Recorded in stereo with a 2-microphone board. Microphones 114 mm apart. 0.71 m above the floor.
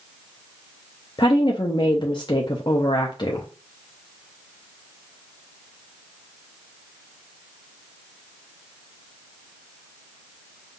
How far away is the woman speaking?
About 0.7 m.